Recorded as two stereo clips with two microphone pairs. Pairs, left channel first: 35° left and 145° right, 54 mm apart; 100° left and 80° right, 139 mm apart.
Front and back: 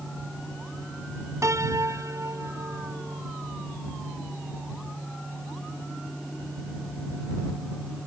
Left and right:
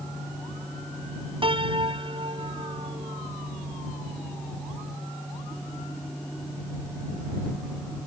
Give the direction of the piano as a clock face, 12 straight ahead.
4 o'clock.